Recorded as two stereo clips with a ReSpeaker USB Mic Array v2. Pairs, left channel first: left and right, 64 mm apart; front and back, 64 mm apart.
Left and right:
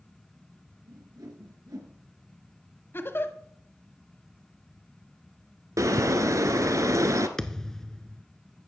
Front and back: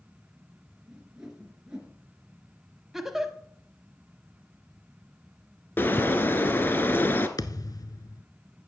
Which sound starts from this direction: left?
A giggle, at 2.9 s.